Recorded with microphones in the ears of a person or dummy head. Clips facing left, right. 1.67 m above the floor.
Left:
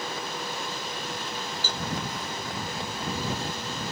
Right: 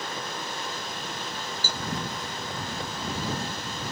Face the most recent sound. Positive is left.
turn(degrees=-5)  # may be behind; listen again after turning